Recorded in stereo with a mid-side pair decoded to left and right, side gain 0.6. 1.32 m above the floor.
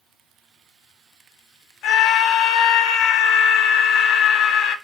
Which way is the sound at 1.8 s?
70° left.